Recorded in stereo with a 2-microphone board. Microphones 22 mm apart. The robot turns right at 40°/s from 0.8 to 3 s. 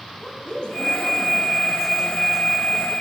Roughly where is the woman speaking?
Behind left.